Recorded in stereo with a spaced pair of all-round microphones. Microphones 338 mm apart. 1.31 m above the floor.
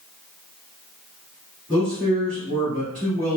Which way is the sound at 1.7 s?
35° right (ahead or behind).